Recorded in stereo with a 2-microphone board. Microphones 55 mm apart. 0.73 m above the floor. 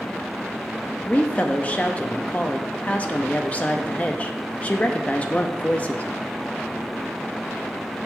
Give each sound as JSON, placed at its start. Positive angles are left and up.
{"t": 1.1, "sound": "a woman speaking", "side_deg": 25, "distance_m": 0.6}